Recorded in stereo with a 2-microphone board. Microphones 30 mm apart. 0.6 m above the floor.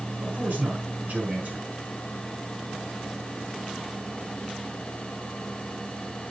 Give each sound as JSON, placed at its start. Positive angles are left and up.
{"t": 0.2, "sound": "a man speaking", "side_deg": -60, "distance_m": 5.5}